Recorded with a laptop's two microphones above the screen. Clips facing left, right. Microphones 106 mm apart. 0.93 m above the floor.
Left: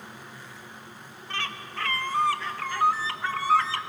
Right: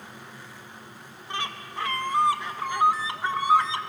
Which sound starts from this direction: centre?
A bird, at 1.3 s.